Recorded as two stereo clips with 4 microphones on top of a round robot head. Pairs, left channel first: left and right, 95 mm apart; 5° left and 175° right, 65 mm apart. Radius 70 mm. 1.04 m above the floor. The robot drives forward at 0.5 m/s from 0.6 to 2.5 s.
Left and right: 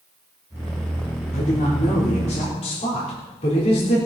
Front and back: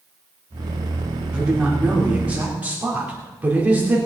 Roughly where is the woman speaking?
Left.